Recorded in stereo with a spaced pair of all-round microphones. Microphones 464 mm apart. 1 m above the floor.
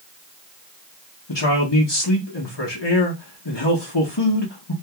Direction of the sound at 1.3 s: 65° left (ahead or behind).